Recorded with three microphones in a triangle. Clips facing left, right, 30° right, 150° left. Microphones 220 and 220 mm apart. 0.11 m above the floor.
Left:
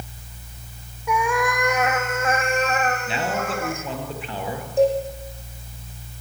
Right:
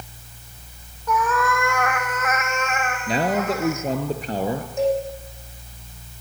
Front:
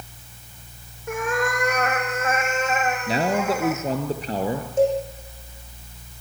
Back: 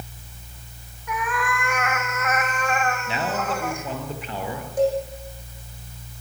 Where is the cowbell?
35° left, 6.5 m.